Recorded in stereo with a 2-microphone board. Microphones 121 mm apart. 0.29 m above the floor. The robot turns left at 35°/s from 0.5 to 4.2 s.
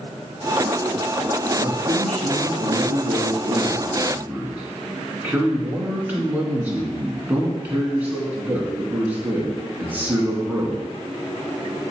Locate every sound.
1.6 s a man speaking: 70° right, 2.5 m; by 10.8 s 165° right, 2.5 m